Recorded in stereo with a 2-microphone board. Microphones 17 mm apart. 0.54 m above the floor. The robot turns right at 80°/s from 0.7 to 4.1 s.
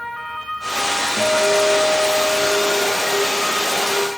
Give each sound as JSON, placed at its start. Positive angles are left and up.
{"t": 1.2, "sound": "a guitar", "azimuth_deg": -55, "distance_m": 6.5}